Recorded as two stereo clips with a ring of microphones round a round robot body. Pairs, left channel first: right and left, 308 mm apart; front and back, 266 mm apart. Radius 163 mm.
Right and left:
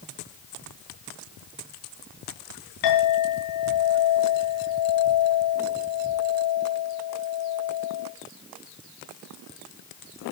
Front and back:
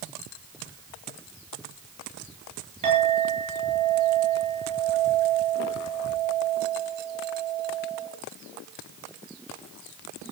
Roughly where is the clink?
Right.